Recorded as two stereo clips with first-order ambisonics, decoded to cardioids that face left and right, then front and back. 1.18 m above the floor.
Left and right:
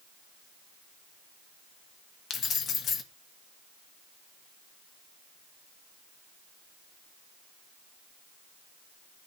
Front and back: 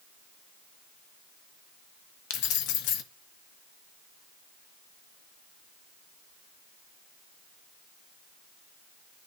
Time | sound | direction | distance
2.3 | keys jangling | 25° left | 1.1 m